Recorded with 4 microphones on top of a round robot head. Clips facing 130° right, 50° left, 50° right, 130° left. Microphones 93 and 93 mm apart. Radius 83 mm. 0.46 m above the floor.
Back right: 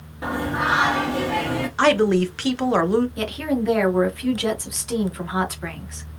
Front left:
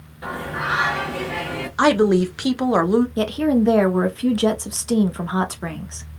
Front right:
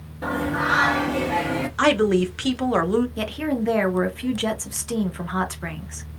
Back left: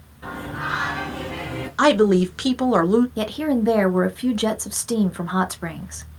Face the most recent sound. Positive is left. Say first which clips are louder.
# front left 5 dB, back left 3 dB
turn(degrees=75)